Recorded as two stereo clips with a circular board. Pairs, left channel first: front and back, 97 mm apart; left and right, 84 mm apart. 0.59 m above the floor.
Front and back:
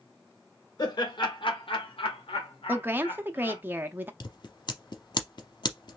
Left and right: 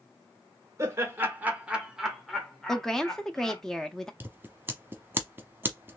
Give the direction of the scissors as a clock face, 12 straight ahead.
1 o'clock.